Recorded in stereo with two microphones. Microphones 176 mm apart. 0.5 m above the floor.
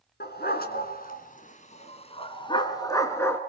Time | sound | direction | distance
0.2 | a dog barking | 70° left (ahead or behind) | 2.5 m